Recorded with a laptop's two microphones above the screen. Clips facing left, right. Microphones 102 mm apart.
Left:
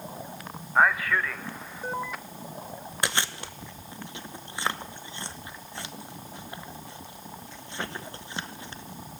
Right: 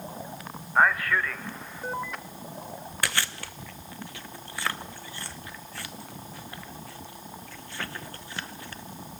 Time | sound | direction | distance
0.8 | a man speaking | 5° left (ahead or behind) | 0.6 m
3.0 | chewing | 20° left (ahead or behind) | 0.7 m